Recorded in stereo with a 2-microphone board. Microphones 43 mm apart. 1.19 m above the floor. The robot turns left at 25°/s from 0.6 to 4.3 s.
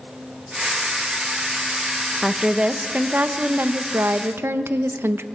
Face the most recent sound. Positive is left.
turn(degrees=-65)